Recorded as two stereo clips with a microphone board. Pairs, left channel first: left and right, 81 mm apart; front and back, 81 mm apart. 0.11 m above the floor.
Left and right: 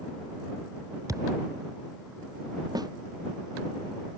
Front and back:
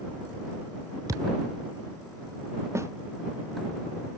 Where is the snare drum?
125° right.